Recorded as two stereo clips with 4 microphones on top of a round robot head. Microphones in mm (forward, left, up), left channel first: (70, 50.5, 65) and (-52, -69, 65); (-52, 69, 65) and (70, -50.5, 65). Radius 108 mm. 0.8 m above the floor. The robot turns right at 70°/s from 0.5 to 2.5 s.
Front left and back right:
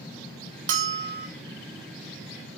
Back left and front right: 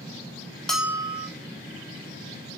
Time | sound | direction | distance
0.7 | a bell | 135° right | 1.1 m